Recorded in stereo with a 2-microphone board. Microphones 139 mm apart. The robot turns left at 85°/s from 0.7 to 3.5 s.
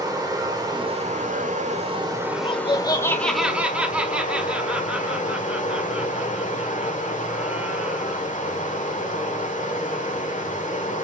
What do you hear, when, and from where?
0.0 s running water: 30° right, 1.3 m; by 11.0 s 90° left, 1.3 m
2.3 s laughter: 90° left, 0.9 m; by 8.3 s 10° right, 0.9 m